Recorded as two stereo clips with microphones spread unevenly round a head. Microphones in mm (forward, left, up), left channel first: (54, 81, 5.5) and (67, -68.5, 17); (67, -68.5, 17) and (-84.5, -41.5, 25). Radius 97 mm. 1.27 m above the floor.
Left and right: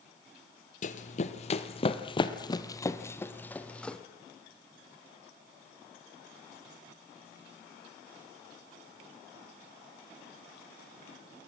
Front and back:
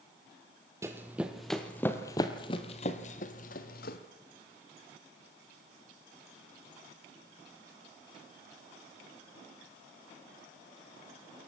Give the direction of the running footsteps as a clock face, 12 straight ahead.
9 o'clock.